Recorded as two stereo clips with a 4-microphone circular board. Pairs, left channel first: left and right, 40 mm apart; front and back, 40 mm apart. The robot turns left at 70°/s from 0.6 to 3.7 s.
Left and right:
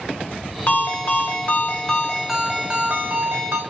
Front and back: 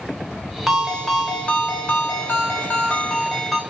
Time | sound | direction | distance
0.7 | a ringtone | 105° left | 0.8 m